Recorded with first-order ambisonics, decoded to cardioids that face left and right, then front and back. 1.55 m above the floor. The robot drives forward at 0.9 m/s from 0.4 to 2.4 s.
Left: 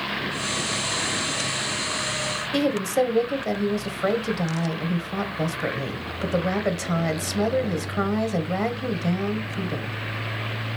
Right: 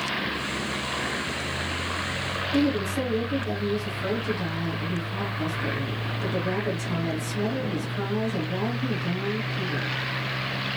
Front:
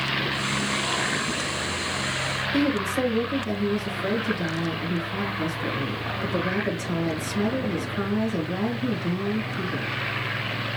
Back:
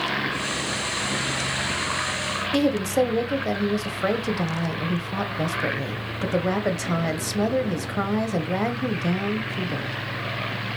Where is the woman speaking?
150° left, 0.8 m.